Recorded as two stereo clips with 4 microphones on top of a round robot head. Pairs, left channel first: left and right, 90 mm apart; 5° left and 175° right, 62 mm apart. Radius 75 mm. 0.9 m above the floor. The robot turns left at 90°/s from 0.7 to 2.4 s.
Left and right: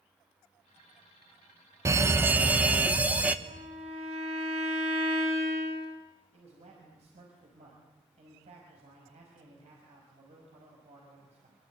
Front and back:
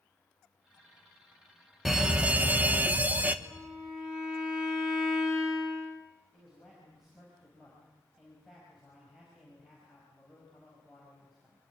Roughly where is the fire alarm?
Right.